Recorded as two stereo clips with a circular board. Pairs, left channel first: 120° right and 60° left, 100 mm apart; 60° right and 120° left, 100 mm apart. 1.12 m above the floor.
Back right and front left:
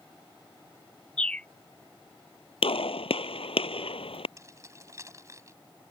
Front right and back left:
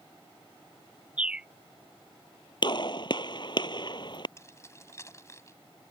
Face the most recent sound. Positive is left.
turn(degrees=0)